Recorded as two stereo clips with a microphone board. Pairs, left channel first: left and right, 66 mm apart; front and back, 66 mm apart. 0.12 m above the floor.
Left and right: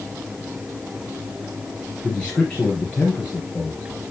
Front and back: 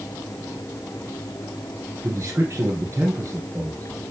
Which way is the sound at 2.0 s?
155° left.